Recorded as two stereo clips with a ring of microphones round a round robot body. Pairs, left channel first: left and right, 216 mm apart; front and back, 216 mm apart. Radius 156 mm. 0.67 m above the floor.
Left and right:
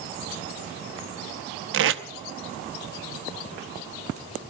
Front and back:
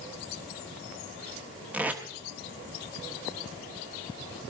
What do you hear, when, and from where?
1.7 s tape being pulled: 95° right, 0.9 m